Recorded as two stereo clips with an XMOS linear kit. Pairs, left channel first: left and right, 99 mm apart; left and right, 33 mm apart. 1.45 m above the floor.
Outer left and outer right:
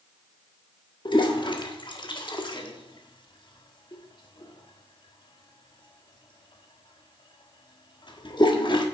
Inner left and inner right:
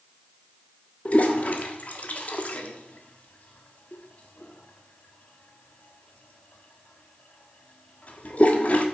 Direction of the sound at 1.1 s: 50° left (ahead or behind).